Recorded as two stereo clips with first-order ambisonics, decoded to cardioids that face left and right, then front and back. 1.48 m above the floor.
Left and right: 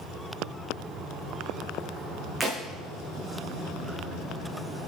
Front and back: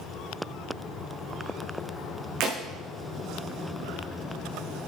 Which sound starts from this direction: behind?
Breaking glass, at 2.4 s.